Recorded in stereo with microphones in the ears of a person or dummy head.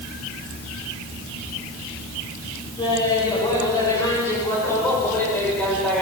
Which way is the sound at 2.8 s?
30° left (ahead or behind).